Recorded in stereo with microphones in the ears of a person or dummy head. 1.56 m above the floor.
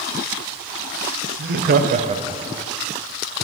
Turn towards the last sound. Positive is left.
turn(degrees=-5)  # may be behind; listen again after turning